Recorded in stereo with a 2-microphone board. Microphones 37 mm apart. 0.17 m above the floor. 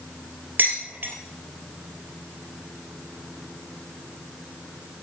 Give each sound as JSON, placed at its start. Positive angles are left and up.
{"t": 0.6, "sound": "dishes clattering", "side_deg": -55, "distance_m": 3.0}